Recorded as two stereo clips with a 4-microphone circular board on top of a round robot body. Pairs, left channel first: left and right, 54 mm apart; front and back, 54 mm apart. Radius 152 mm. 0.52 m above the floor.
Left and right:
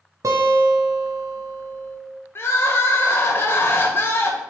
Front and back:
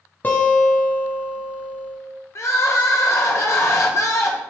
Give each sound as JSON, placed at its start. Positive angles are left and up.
{"t": 0.2, "sound": "a guitar", "azimuth_deg": -60, "distance_m": 0.6}
{"t": 2.4, "sound": "crying", "azimuth_deg": 40, "distance_m": 0.8}